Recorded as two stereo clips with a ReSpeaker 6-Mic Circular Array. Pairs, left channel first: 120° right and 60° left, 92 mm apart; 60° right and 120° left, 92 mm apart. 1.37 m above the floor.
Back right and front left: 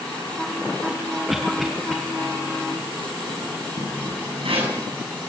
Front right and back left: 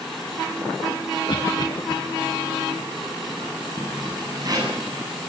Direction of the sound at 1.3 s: 25° right.